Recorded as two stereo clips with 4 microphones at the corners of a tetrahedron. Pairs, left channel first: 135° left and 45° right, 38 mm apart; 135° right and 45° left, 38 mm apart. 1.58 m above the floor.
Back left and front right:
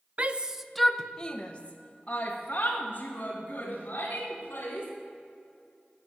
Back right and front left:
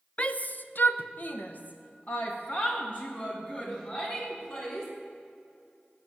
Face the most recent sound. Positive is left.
turn(degrees=175)